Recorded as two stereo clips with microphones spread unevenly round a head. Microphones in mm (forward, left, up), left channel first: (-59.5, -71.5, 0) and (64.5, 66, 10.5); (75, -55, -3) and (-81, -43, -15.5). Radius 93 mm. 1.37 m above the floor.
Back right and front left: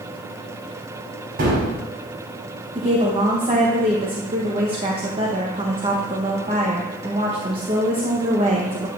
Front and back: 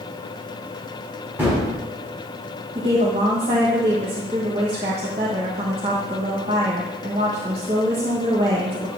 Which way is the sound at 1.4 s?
95° left.